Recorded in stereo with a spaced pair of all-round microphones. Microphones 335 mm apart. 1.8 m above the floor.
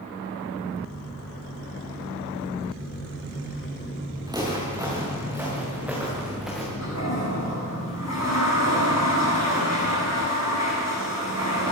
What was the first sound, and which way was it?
Footsteps, 10° right (ahead or behind).